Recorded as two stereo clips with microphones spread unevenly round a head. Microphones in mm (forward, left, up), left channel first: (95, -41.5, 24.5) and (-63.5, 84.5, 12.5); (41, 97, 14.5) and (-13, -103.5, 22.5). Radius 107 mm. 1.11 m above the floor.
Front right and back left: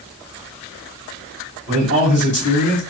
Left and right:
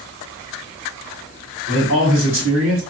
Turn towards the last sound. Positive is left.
turn(degrees=-75)